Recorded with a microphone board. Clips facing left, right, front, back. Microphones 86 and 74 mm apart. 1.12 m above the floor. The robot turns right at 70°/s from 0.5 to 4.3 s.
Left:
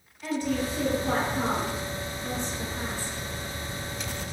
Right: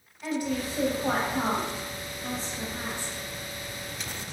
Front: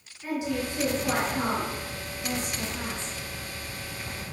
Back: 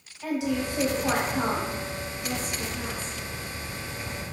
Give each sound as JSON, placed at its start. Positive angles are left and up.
{"t": 0.2, "sound": "a woman speaking", "azimuth_deg": -165, "distance_m": 0.9}